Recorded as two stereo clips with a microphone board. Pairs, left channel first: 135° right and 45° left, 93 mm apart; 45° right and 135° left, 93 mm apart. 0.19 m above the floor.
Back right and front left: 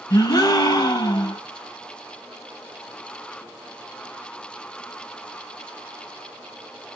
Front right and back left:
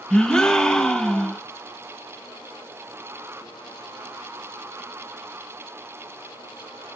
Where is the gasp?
125° right, 0.5 m.